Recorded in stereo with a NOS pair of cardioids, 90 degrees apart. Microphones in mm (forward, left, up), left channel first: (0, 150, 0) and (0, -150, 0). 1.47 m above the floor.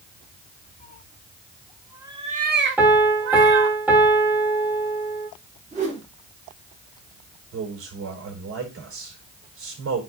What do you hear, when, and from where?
0.8 s a cat meowing: 30° left, 2 m; by 3.8 s 75° right, 2 m
2.8 s a piano: 5° right, 3 m
5.7 s a whoosh: 25° right, 4.5 m
7.5 s a man speaking: 45° right, 4.5 m